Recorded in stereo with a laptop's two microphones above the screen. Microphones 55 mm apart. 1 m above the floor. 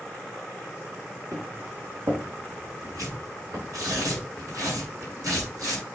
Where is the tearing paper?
80° right, 6.5 m.